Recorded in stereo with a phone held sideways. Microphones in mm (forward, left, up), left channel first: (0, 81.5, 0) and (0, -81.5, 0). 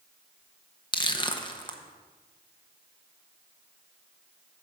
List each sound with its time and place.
0.9 s crushing: 30° left (ahead or behind), 0.8 m